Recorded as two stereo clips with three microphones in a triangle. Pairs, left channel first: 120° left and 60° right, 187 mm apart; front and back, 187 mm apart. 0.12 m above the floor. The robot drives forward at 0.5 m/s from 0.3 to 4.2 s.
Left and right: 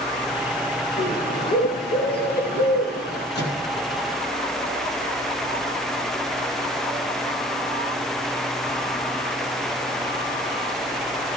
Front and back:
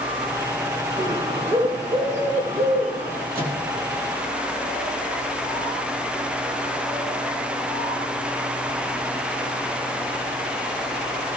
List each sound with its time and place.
1.0 s a bird: 125° left, 2.5 m; by 3.2 s 145° left, 3 m
3.4 s a microwave: 145° left, 3 m